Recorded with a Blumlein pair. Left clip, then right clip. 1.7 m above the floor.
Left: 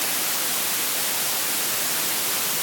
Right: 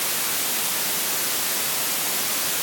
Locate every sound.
Only background noise.